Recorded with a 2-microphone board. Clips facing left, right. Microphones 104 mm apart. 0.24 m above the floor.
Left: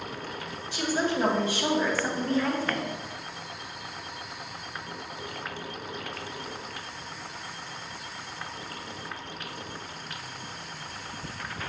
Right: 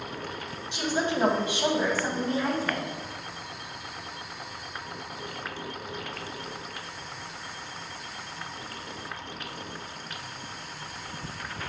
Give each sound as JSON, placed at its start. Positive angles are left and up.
{"t": 0.7, "sound": "a woman speaking", "side_deg": -20, "distance_m": 1.4}